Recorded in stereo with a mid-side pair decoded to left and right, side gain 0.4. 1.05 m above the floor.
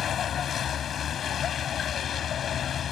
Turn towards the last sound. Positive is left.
turn(degrees=65)